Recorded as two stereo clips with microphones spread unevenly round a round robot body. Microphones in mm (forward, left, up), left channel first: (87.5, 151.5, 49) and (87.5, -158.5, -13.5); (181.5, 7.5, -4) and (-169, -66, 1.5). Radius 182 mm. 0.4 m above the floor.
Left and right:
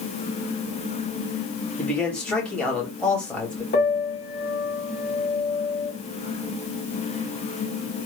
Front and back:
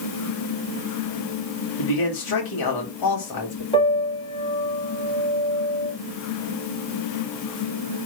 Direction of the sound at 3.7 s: 60° left.